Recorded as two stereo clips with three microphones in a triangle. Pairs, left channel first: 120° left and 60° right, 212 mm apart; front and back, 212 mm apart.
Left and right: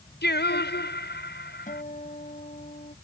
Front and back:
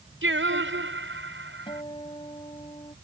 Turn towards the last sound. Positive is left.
turn(degrees=65)